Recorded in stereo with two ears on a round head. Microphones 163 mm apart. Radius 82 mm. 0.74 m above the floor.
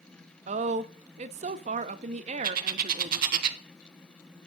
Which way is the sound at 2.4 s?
55° right (ahead or behind).